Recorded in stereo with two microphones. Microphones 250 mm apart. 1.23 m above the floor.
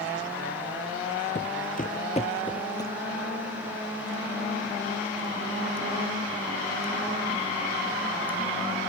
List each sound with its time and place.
1.4 s footsteps: 40° left (ahead or behind); by 2.9 s 15° left (ahead or behind)